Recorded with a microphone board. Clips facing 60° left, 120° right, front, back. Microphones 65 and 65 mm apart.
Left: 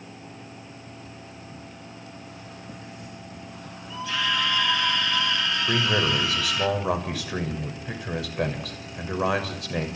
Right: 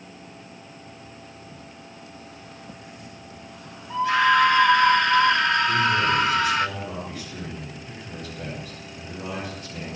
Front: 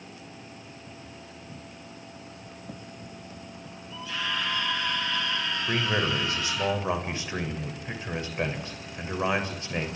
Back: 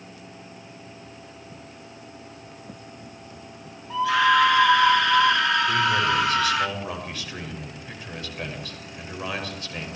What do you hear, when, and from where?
3.9 s a scream: 165° right, 2.5 m
5.7 s a man speaking: 65° left, 6.5 m